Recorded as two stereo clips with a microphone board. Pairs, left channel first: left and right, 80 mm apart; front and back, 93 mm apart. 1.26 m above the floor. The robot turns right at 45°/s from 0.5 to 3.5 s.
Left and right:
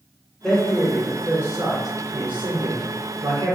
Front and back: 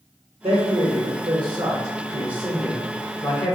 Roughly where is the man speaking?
Behind.